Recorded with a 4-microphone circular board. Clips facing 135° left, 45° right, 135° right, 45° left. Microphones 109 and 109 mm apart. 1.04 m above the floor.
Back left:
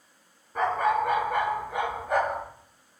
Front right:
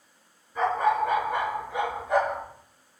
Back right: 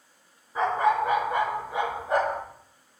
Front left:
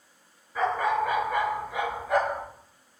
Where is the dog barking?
160° left, 3 m; by 2.4 s 170° left, 4 m.